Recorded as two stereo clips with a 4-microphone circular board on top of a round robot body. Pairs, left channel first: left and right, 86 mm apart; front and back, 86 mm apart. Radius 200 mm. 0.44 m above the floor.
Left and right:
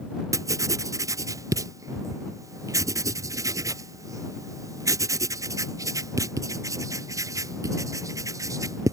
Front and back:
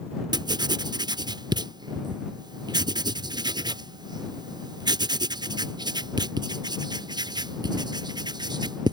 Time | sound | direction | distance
0.3 | writing | 140° right | ?